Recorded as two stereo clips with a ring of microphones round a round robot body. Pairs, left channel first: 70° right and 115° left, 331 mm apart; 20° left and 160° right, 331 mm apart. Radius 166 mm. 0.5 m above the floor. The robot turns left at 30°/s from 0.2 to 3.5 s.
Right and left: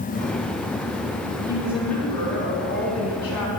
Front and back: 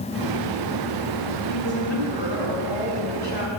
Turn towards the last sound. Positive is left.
turn(degrees=-30)